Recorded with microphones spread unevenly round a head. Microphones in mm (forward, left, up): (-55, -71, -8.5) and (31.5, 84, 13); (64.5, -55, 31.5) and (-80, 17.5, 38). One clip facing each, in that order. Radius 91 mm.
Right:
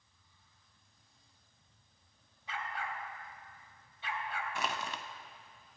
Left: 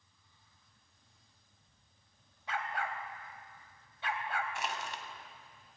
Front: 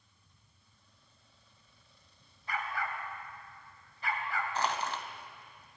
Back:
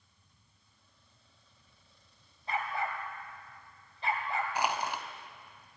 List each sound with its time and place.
2.5 s a dog barking: 85° left, 2.5 m
4.5 s crushing: 130° right, 1.7 m